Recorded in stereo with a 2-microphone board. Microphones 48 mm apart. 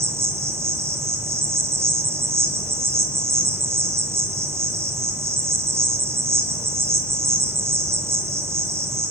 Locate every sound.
0.0 s an insect: 70° right (ahead or behind), 3 m